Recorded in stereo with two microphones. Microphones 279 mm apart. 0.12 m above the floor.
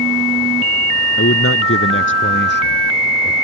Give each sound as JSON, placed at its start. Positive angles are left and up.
{"t": 1.2, "sound": "a man speaking", "side_deg": 50}